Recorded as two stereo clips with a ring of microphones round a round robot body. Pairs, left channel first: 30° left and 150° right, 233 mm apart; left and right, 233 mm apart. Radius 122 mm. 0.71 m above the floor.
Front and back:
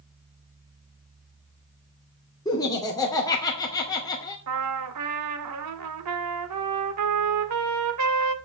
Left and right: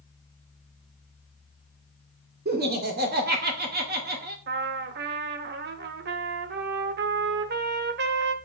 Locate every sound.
2.5 s laughter: 45° right, 2 m
4.5 s a trumpet: 135° right, 1.1 m